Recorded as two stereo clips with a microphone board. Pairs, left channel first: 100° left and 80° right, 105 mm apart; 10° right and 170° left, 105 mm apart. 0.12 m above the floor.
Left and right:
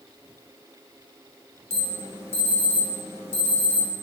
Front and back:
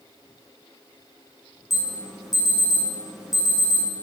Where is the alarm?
105° right, 2 m.